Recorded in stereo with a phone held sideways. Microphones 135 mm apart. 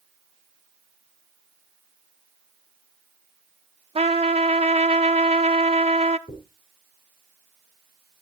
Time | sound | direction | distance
4.0 | a trumpet | 50° right (ahead or behind) | 0.5 m
6.3 | a dropped coin | 65° left (ahead or behind) | 3.5 m